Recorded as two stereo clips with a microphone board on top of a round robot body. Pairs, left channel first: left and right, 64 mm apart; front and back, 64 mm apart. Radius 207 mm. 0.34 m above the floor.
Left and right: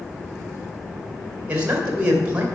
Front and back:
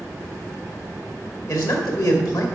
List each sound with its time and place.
1.5 s a man speaking: 20° right, 3 m